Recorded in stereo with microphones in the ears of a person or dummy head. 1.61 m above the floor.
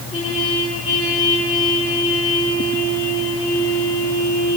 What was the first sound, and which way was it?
A trumpet, 25° left (ahead or behind).